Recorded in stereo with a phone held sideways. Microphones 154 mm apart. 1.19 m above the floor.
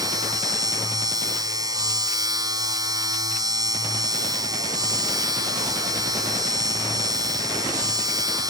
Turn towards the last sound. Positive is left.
turn(degrees=-25)  # may be behind; listen again after turning